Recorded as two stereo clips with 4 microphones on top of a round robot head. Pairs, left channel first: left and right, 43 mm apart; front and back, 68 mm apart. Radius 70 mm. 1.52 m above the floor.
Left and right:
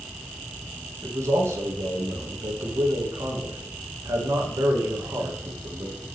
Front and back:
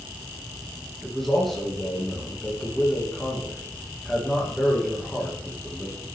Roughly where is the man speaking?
Right.